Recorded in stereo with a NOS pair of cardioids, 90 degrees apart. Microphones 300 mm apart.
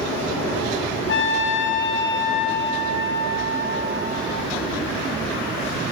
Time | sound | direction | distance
1.1 | a trumpet | 40° left | 1.6 m